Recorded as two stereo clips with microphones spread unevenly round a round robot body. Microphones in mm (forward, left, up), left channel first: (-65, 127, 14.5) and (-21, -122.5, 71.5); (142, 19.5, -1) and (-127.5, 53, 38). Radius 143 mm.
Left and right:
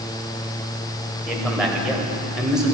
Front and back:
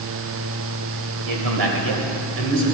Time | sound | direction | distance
1.3 | a man speaking | 170° right | 2.5 m